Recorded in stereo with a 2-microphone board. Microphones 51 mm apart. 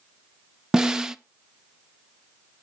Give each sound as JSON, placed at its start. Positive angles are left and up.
{"t": 0.7, "sound": "a snare drum", "side_deg": -10, "distance_m": 0.6}